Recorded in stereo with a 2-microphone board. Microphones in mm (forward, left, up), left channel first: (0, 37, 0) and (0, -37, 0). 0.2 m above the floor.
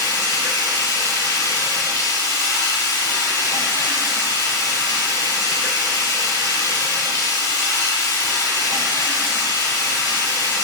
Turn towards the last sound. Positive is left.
turn(degrees=45)  # may be behind; listen again after turning